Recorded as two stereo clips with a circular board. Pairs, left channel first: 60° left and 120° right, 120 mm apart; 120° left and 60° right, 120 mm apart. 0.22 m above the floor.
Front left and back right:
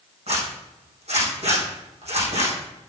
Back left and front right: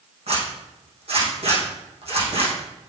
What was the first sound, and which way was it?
A zipper, 90° right.